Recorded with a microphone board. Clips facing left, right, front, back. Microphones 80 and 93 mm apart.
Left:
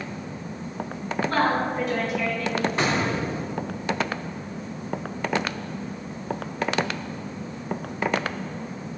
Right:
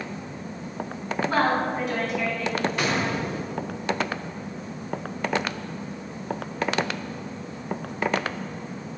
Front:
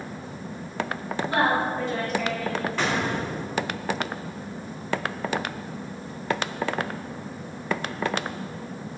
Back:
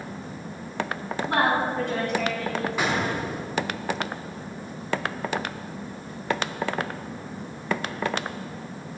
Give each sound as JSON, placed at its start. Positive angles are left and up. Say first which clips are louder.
{"t": 1.3, "sound": "a woman speaking", "louder": "even, even", "azimuth_deg": -175, "distance_m": 1.6}
{"t": 2.8, "sound": "an explosion", "louder": "left 1 dB, even", "azimuth_deg": 105, "distance_m": 0.8}